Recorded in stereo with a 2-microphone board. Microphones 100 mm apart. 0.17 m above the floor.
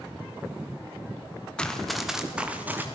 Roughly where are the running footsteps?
Centre.